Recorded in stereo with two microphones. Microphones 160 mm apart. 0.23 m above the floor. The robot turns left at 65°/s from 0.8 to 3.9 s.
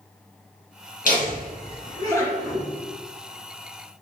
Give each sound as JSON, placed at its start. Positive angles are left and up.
{"t": 1.1, "sound": "laughter", "side_deg": 60, "distance_m": 1.9}